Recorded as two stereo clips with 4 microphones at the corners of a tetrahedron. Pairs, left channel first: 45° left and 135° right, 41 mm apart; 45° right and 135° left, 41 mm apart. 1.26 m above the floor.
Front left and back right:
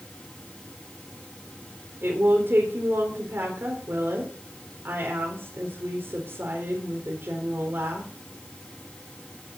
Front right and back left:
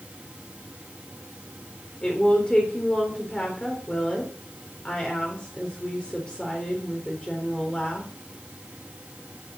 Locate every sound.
2.0 s a woman speaking: 110° right, 3.5 m